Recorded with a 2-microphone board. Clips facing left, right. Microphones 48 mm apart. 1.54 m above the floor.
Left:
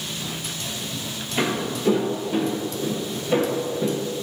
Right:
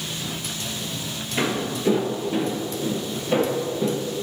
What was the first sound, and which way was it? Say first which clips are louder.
Footsteps: even; 5° right (ahead or behind).